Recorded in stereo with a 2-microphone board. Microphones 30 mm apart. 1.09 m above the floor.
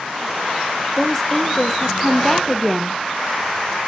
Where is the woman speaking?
10° left (ahead or behind), 0.7 m.